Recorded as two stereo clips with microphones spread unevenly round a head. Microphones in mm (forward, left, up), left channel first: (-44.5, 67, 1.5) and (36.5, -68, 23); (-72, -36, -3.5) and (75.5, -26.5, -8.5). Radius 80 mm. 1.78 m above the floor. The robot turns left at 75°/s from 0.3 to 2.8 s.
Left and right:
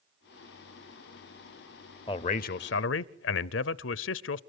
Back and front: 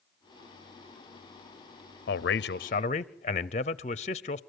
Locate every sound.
2.1 s a man speaking: 175° right, 0.7 m; by 4.4 s 130° left, 0.7 m